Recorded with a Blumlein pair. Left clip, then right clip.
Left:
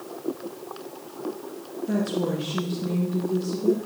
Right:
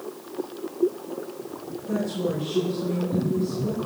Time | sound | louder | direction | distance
1.9 | a woman speaking | even | 65° left | 1.5 m